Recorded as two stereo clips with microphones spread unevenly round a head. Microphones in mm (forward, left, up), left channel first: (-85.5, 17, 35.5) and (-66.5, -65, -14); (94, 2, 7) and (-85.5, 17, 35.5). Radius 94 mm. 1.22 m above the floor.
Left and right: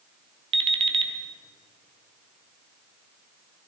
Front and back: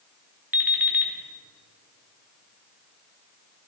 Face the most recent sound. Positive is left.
turn(degrees=-120)